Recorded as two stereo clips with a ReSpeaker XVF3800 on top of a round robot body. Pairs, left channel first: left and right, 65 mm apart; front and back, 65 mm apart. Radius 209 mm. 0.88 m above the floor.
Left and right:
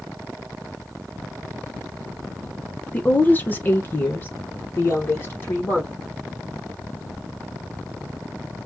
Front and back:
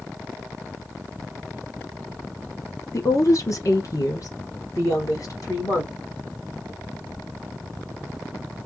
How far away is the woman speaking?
About 1.2 m.